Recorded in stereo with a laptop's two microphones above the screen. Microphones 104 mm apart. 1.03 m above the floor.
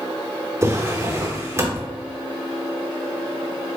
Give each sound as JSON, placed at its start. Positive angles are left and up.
{"t": 0.6, "sound": "a drawer", "side_deg": -25, "distance_m": 0.7}